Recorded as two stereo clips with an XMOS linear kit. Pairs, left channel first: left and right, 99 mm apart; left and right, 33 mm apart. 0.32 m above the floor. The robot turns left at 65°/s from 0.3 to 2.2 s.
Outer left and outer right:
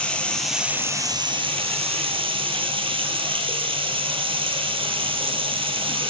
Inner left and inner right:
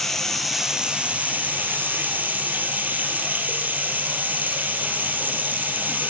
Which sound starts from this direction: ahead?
Running water, at 0.0 s.